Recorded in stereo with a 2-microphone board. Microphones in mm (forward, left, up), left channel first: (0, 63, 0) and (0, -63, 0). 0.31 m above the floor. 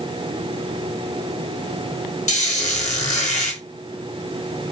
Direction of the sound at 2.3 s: 80° left.